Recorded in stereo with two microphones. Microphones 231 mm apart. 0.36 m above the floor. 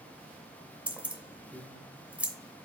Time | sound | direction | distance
0.9 | keys jangling | 5° right (ahead or behind) | 0.7 m